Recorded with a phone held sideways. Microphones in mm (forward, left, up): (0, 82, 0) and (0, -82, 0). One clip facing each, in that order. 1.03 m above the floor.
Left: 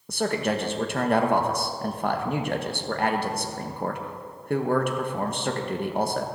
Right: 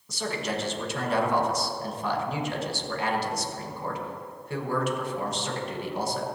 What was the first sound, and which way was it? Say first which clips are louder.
A man speaking: left 6 dB; 55° left (ahead or behind).